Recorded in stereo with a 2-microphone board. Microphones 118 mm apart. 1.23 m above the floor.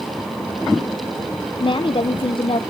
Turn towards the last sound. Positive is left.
turn(degrees=50)  # may be behind; listen again after turning